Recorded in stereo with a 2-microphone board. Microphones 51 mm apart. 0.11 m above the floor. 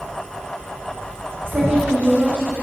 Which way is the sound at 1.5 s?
45° right (ahead or behind).